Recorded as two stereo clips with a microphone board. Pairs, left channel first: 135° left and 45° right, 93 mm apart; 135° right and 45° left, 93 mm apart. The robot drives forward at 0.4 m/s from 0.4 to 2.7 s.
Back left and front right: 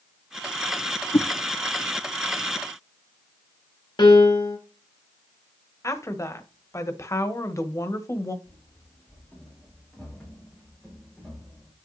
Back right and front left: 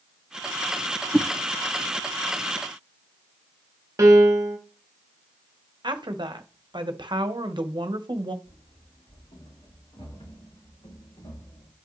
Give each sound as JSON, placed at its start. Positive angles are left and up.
{"t": 1.1, "sound": "a whoosh", "azimuth_deg": 140, "distance_m": 1.2}
{"t": 4.0, "sound": "a piano", "azimuth_deg": 100, "distance_m": 1.2}
{"t": 5.8, "sound": "a woman speaking", "azimuth_deg": 75, "distance_m": 1.0}
{"t": 8.4, "sound": "running footsteps", "azimuth_deg": -160, "distance_m": 5.5}